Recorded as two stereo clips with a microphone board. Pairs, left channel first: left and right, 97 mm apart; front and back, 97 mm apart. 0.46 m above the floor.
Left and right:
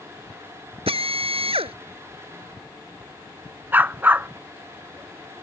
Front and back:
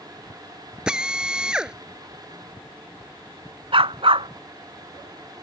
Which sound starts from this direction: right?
A drill, at 0.9 s.